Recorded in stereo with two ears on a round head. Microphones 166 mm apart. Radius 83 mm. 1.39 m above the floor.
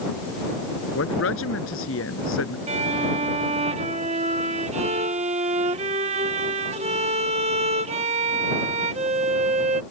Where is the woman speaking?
80° left.